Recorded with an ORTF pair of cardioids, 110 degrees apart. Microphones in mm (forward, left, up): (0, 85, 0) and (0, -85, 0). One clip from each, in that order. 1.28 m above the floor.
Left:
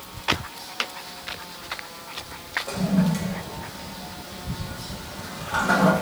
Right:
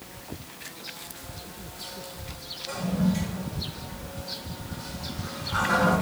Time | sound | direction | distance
2.7 | a toilet flushing | 50° left | 1.0 m